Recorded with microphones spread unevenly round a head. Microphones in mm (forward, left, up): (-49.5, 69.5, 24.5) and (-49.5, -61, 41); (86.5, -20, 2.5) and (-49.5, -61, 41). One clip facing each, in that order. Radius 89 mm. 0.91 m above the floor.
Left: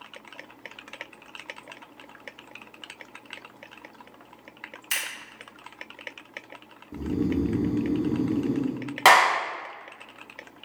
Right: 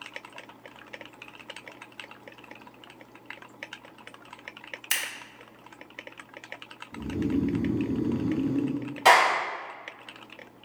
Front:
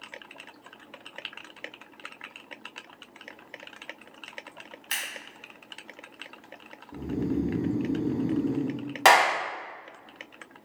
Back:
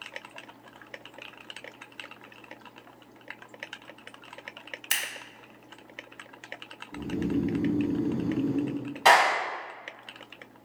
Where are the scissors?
125° right, 1.1 m.